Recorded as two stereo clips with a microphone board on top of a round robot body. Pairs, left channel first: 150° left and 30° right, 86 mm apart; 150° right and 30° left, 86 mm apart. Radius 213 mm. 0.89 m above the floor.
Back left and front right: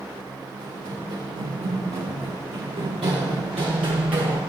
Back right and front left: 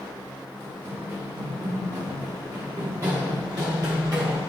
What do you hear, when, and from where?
0.6 s running footsteps: 20° right, 3.5 m; by 4.4 s 15° right, 1.3 m